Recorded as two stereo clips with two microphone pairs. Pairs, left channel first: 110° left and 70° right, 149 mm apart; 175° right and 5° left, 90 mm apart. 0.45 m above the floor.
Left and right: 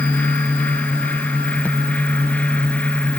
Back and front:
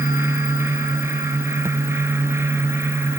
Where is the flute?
I don't hear a flute.